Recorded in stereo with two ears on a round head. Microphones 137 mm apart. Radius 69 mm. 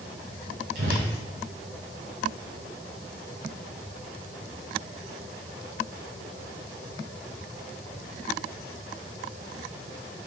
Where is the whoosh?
70° right (ahead or behind), 3.5 m.